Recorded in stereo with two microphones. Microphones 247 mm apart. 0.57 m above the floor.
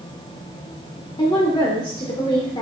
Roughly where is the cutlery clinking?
I don't hear cutlery clinking.